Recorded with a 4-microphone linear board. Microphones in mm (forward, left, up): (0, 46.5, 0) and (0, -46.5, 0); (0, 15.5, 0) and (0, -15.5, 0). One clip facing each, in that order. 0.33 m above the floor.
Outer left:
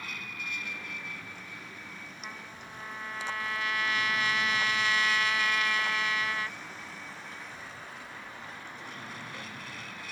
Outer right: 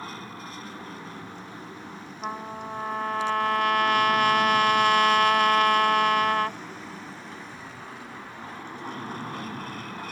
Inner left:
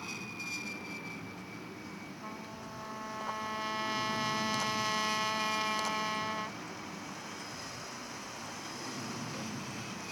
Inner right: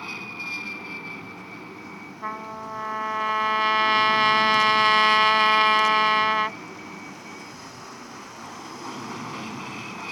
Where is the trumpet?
70° right (ahead or behind).